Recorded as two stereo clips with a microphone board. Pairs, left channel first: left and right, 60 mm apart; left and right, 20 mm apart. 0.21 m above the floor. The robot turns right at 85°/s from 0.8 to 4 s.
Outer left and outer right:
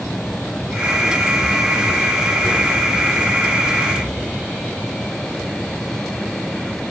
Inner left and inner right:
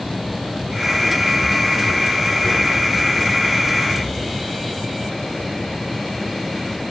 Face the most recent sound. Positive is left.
No sound to turn to.